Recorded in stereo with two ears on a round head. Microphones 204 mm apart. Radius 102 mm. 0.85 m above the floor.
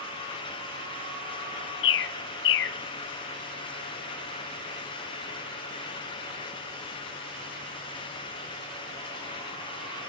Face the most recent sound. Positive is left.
turn(degrees=55)  # may be behind; listen again after turning